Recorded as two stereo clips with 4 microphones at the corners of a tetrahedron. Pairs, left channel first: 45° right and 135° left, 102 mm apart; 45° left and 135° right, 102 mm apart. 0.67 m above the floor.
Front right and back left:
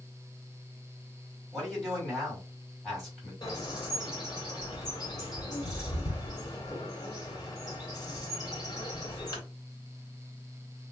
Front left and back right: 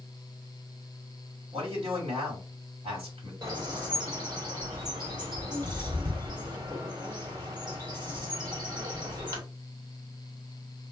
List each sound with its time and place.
1.5 s a man speaking: 135° right, 1.7 m
3.4 s a bird: 90° right, 1.5 m